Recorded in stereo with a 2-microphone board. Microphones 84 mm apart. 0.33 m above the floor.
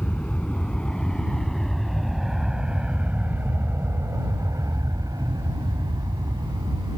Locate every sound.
0.0 s an aircraft: 15° left (ahead or behind); by 7.0 s 55° right (ahead or behind)